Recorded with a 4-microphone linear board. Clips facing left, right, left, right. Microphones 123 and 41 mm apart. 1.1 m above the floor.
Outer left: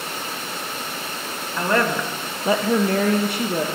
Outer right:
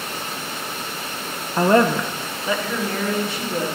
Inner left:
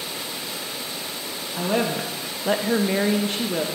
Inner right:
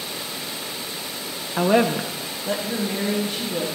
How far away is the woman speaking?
About 0.6 m.